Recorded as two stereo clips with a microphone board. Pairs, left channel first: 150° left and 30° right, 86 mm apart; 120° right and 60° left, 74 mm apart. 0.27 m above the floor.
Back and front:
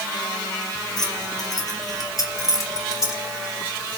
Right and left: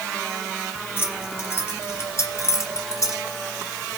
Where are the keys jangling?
Straight behind, 4 m; by 3.2 s 160° right, 3.5 m.